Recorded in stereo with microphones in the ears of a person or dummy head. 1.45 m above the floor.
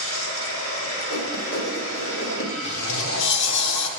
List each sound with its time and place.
0.0 s running water: 65° left (ahead or behind), 5.5 m
1.1 s writing: 85° left, 2.5 m
2.6 s a sliding door: 65° left (ahead or behind), 1.1 m